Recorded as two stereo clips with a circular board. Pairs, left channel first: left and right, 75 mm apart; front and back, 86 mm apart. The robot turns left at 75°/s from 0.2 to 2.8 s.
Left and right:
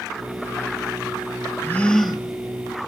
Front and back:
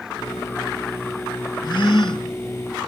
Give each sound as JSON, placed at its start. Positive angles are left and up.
{"t": 1.6, "sound": "a gasp", "azimuth_deg": 30, "distance_m": 1.2}